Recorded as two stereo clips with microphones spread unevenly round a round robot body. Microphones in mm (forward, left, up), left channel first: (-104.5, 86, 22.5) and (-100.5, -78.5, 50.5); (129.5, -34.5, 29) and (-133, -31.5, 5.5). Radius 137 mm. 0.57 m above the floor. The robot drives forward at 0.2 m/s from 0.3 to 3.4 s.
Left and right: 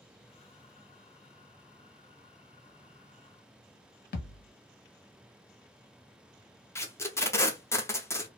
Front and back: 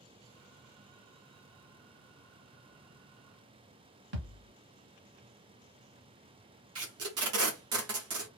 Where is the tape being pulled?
160° left, 0.8 m.